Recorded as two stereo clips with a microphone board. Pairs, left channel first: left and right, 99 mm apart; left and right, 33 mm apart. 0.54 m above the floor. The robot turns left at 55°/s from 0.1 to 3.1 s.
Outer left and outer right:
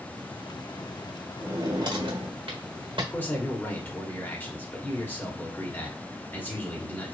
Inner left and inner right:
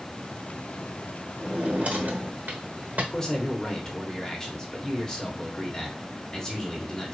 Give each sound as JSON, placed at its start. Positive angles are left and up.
{"t": 1.4, "sound": "a drawer", "azimuth_deg": -30, "distance_m": 1.1}
{"t": 3.1, "sound": "a man speaking", "side_deg": 20, "distance_m": 1.2}